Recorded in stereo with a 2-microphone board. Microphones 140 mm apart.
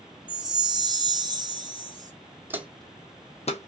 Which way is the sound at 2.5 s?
15° right (ahead or behind).